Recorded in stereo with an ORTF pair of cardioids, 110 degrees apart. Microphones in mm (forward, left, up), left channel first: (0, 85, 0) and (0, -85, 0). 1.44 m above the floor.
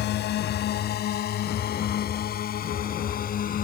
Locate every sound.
0.0 s a drone: 65° left; by 3.6 s 50° left